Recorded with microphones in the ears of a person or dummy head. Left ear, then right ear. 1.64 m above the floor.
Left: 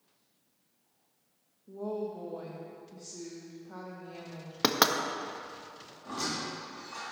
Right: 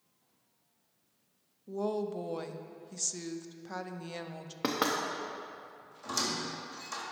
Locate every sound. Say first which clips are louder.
1.7 s a woman speaking: right 2 dB; 75° right (ahead or behind), 0.6 m
4.6 s knocking: left 5 dB; 35° left (ahead or behind), 0.6 m
6.0 s a squeak: right 1 dB; 70° right (ahead or behind), 2 m